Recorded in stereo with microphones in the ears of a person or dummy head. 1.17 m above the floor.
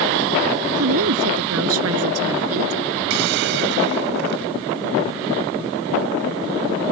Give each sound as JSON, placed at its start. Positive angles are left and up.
{"t": 0.8, "sound": "a woman speaking", "side_deg": -85}
{"t": 3.1, "sound": "a hiss", "side_deg": -65}